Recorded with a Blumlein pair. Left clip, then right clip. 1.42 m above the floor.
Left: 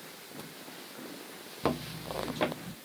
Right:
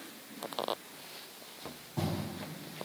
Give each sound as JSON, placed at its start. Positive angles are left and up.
{"t": 1.6, "sound": "footsteps", "azimuth_deg": 55}